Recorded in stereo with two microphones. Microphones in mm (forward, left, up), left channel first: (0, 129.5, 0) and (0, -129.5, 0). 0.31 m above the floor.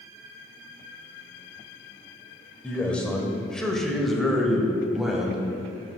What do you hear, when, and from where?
2.6 s a man speaking: 5° left (ahead or behind), 0.9 m; by 5.5 s centre (ahead or behind), 1.5 m